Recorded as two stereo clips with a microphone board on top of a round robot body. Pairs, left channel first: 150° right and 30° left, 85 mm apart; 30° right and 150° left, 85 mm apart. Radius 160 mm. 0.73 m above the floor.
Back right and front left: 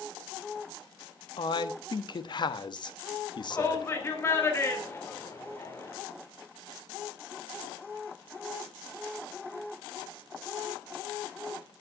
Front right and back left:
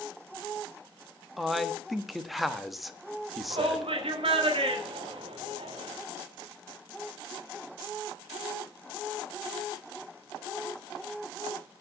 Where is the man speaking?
120° right, 1.3 m.